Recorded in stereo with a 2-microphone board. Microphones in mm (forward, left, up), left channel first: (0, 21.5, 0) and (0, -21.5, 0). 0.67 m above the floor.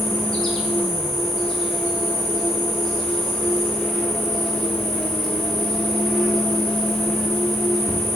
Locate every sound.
0.0 s an insect: 5° left (ahead or behind), 0.9 m